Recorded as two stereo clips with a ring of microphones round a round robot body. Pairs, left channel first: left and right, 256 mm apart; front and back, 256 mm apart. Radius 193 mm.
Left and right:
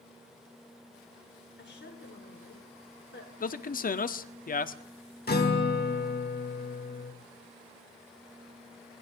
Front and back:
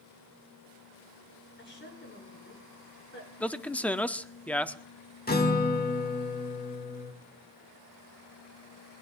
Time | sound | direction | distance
1.6 | a woman speaking | 45° left | 6.5 m
3.4 | a man speaking | 80° left | 0.8 m
5.3 | a guitar | 45° left | 2 m